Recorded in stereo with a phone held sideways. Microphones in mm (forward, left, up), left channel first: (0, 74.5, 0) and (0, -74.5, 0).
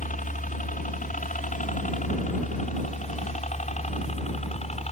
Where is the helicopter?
65° left (ahead or behind); by 4.9 s 45° left (ahead or behind).